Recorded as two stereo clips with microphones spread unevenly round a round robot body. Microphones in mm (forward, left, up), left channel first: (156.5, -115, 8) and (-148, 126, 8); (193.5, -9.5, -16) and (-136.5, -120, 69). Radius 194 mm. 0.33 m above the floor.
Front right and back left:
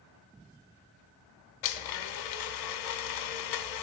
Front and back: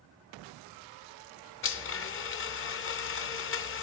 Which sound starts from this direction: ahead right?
A blender, at 1.6 s.